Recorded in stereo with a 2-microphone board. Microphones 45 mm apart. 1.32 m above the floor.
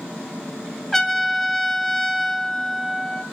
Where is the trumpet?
10° left (ahead or behind), 1.2 m.